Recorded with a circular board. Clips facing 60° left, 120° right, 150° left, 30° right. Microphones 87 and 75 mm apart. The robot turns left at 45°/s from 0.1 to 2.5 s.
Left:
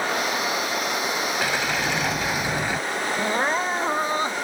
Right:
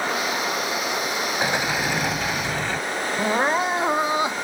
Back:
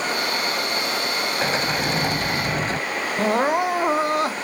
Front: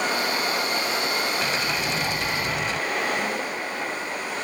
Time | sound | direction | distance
1.4 | a sliding door | straight behind | ?
3.2 | crying | 160° left | ?